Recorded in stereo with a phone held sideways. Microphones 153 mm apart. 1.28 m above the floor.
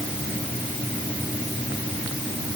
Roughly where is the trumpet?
I don't hear a trumpet.